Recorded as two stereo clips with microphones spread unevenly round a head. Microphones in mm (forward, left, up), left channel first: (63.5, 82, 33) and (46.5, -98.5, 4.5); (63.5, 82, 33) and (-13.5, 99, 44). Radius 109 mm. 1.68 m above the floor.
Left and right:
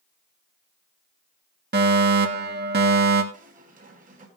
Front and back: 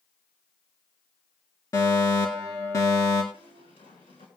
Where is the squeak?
50° right, 4 m.